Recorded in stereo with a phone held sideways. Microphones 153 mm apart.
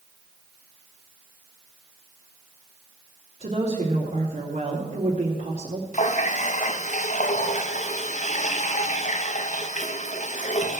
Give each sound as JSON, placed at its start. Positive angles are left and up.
{"t": 3.4, "sound": "a woman speaking", "side_deg": -50, "distance_m": 3.0}
{"t": 5.9, "sound": "a running tap", "side_deg": 50, "distance_m": 0.8}